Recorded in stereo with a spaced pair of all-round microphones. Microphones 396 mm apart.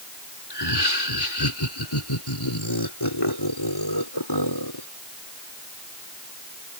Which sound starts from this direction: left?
Laughter, at 0.5 s.